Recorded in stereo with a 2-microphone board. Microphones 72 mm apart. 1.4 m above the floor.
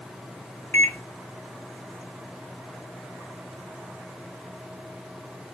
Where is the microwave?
30° left (ahead or behind), 0.5 m.